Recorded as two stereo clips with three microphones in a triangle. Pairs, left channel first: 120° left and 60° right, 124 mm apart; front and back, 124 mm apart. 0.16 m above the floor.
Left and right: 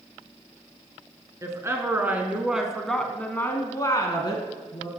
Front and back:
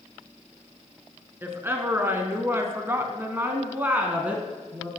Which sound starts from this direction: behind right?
A woman speaking, at 1.4 s.